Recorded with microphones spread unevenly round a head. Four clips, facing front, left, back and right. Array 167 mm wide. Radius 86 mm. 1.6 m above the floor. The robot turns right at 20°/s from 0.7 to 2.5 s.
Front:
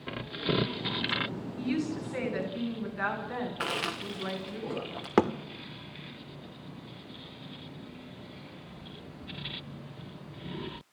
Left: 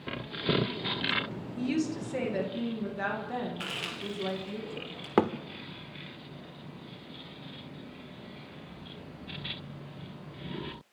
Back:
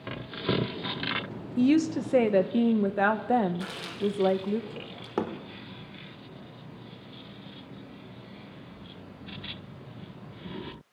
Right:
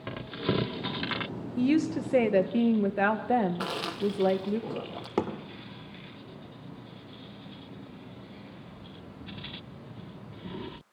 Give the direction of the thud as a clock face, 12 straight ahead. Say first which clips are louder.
Left 4 dB, front 6 dB; 10 o'clock.